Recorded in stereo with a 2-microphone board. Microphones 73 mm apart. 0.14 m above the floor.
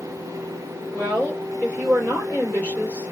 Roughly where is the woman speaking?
Right.